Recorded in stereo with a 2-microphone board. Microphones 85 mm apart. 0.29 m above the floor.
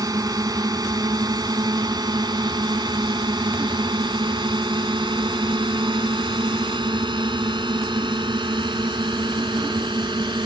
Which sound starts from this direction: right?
A drone, at 0.0 s.